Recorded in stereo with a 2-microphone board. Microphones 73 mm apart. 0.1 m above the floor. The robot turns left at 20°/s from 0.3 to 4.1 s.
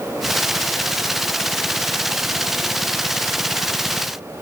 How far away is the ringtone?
I don't hear a ringtone.